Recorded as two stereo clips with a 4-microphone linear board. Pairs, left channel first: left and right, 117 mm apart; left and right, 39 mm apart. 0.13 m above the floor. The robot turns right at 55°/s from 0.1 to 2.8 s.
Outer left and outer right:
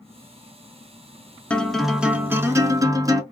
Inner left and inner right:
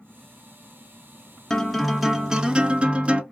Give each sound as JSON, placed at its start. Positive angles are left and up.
{"t": 1.5, "sound": "a guitar", "azimuth_deg": 165, "distance_m": 0.6}